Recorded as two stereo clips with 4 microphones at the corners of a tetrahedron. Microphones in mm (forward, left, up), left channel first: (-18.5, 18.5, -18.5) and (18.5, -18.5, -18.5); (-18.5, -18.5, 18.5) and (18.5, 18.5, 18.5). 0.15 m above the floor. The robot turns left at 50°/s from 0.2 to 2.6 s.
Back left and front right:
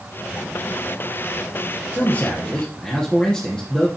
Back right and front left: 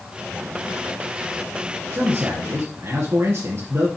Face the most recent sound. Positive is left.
turn(degrees=65)